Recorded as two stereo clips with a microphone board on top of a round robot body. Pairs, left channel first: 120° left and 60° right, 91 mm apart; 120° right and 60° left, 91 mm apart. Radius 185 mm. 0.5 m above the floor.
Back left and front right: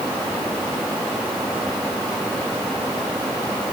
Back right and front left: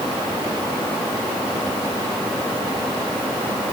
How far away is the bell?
No bell in this recording.